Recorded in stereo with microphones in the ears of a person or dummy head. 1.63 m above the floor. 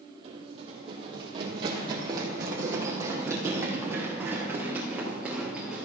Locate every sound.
0.2 s running footsteps: 35° right (ahead or behind), 4 m; by 5.8 s 5° right (ahead or behind), 6.5 m